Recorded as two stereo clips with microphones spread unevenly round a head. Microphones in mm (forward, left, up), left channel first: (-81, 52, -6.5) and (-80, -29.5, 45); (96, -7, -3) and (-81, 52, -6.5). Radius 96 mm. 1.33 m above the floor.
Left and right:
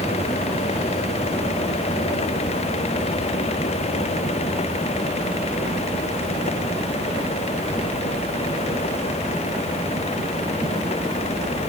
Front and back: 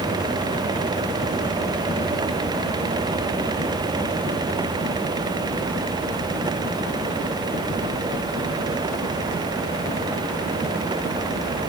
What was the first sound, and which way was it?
Only background noise.